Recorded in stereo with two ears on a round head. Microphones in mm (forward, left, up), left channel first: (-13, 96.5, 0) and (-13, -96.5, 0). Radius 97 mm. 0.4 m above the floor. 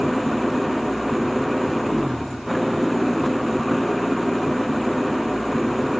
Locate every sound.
0.0 s an engine running: centre (ahead or behind)